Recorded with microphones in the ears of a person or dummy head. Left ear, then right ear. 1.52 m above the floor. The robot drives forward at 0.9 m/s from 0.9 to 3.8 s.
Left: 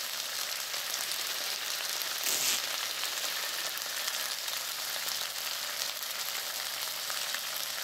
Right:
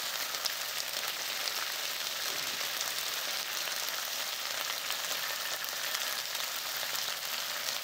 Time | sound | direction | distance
2.2 | tearing paper | 65° left (ahead or behind) | ?